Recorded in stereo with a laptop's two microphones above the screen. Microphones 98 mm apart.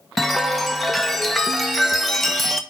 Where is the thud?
No thud in this recording.